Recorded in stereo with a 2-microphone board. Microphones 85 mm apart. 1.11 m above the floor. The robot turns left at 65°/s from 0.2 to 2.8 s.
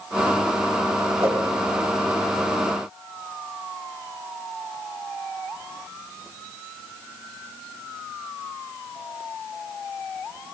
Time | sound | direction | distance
1.2 | a whoosh | 30° right (ahead or behind) | 4.5 m